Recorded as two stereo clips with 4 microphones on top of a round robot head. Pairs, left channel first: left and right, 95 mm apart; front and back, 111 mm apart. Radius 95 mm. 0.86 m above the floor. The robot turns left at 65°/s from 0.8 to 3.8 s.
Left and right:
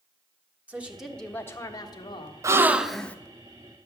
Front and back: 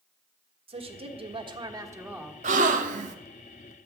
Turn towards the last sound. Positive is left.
turn(degrees=125)